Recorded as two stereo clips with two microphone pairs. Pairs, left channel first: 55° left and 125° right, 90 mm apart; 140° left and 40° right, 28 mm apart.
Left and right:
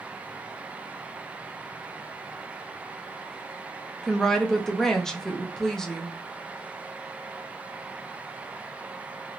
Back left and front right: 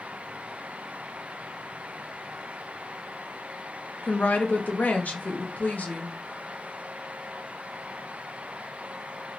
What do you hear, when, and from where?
4.0 s a woman speaking: 140° left, 0.7 m